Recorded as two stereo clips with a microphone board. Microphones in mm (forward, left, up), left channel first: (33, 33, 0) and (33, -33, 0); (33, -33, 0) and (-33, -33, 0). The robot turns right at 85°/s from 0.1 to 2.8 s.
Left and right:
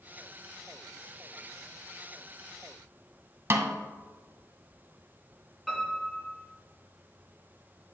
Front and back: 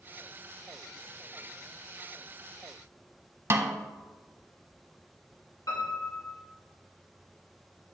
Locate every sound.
3.5 s a snare drum: 135° right, 0.7 m
5.7 s a piano: straight ahead, 3 m